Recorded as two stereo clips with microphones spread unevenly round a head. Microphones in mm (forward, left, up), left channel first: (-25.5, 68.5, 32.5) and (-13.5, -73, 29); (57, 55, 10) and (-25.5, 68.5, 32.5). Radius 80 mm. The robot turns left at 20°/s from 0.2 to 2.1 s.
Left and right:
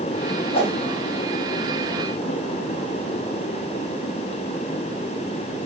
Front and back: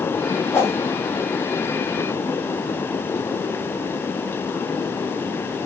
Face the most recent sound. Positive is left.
turn(degrees=15)